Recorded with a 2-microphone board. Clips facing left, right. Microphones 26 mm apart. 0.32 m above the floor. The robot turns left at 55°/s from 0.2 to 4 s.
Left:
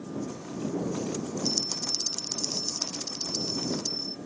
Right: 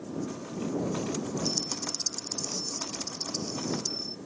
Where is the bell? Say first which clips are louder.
Left 2 dB; 155° left; by 4.2 s 15° left.